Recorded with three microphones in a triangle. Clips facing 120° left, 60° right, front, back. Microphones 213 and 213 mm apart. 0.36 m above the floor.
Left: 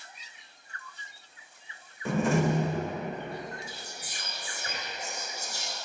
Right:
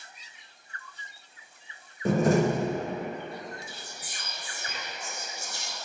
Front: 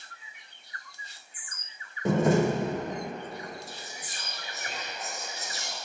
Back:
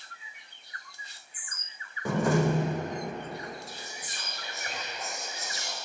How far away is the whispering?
About 1.6 m.